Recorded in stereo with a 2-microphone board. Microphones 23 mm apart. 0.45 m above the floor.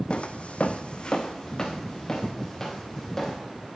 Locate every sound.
0.1 s footsteps: 50° left (ahead or behind), 1.0 m; by 3.4 s 10° left (ahead or behind), 4 m